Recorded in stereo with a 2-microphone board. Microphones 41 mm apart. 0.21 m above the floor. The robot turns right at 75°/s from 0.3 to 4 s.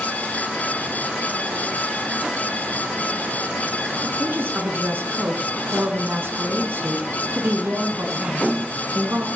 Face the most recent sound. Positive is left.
turn(degrees=-60)  # may be behind; listen again after turning